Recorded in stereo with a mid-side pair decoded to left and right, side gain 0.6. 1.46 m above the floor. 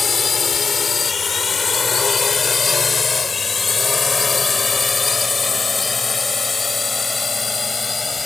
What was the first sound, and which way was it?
A drone, 25° left.